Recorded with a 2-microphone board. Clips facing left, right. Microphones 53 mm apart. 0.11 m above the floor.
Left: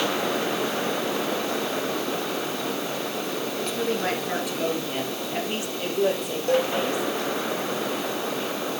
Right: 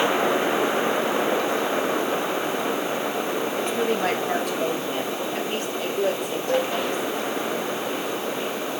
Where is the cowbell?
80° left, 2.0 m.